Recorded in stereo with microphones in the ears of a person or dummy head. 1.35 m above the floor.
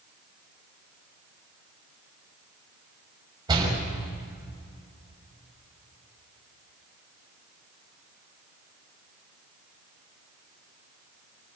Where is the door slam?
25° right (ahead or behind), 6 m.